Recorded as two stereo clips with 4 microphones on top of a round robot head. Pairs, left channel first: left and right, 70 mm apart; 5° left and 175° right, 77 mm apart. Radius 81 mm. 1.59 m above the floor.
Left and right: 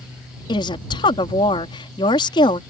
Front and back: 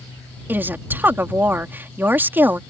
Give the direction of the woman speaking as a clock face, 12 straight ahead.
8 o'clock.